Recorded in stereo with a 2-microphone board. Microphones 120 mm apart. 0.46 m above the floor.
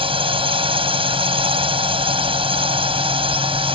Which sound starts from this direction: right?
A drone, at 0.0 s.